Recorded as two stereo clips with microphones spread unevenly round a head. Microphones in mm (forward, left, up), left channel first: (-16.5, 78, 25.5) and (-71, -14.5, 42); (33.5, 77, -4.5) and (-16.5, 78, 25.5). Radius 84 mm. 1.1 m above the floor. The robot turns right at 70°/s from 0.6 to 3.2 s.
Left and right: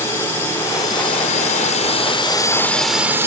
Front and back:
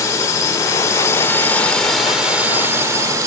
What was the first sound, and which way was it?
A drone, 10° right.